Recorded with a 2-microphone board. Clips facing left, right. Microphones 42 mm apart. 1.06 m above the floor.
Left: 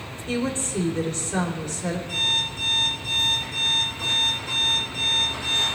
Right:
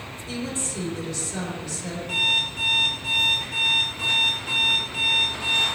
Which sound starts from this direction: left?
A woman speaking, at 0.3 s.